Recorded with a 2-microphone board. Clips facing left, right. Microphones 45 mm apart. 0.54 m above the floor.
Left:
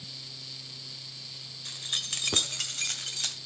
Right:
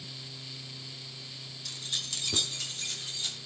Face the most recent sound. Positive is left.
turn(degrees=75)  # may be behind; listen again after turning